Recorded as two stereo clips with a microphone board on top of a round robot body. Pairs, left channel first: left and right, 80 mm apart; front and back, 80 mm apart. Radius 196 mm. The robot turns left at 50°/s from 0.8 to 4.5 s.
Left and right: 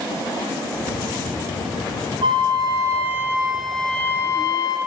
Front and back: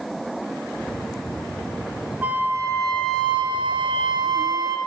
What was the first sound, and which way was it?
A flute, 105° right.